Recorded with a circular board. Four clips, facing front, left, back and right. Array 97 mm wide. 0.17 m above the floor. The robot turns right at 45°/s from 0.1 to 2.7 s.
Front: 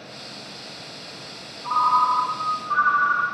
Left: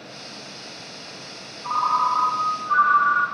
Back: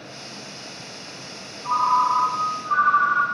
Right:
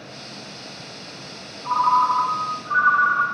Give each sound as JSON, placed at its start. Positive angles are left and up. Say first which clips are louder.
{"t": 1.6, "sound": "a ringtone", "louder": "right 3 dB, even", "azimuth_deg": 95, "distance_m": 1.5}